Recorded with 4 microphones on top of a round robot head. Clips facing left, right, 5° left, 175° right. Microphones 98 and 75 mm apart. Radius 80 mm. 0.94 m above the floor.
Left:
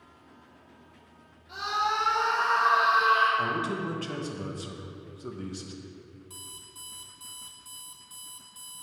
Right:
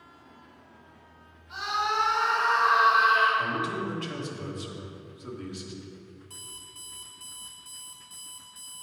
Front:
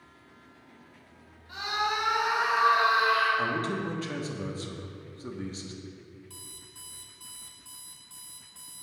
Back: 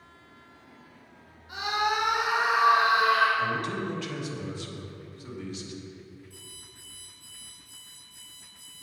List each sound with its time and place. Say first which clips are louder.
1.5 s a scream: even, back 3 dB; 110° left, 3 m; by 3.3 s 145° left, 3.5 m
3.4 s a man speaking: even, even; 50° left, 1.2 m
6.3 s an alarm clock: even, even; 10° left, 1.4 m